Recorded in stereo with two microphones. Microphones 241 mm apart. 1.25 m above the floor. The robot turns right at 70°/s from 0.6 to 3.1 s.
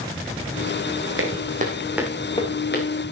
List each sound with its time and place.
1.2 s footsteps: 60° right (ahead or behind), 3.5 m; by 2.9 s 60° left (ahead or behind), 4.5 m